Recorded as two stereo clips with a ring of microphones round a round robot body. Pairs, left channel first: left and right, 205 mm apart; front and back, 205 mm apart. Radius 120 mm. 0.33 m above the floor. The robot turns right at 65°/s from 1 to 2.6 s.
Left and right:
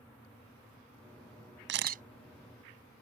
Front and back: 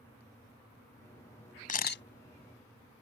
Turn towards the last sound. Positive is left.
turn(degrees=5)